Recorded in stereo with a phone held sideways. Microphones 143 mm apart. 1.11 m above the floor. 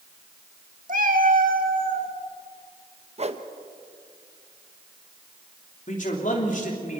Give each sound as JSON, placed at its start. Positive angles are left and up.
{"t": 0.9, "sound": "a cat meowing", "side_deg": -60, "distance_m": 1.2}
{"t": 3.2, "sound": "a whoosh", "side_deg": -45, "distance_m": 1.0}
{"t": 5.9, "sound": "a man speaking", "side_deg": 60, "distance_m": 3.0}